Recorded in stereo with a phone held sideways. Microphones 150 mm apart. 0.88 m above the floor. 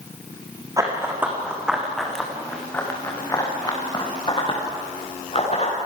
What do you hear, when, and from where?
0.8 s running footsteps: 20° right (ahead or behind), 4 m; by 5.8 s 40° left (ahead or behind), 7 m